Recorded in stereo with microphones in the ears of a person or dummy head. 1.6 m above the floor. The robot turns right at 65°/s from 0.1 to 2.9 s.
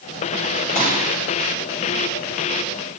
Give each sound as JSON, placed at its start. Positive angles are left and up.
{"t": 0.8, "sound": "a pop", "side_deg": -45, "distance_m": 5.5}